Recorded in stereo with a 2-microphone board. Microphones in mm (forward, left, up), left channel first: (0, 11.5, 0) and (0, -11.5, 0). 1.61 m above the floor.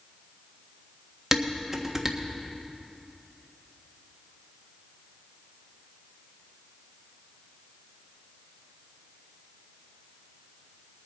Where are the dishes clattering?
20° right (ahead or behind), 1.4 m.